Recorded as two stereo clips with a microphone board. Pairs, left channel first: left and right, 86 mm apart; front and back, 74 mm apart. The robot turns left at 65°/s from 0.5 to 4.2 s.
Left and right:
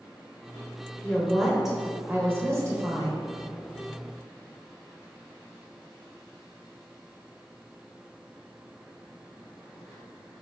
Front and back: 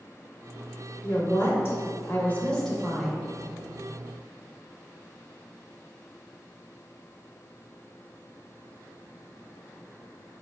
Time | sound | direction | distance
1.0 | a woman speaking | 35° left | 0.9 m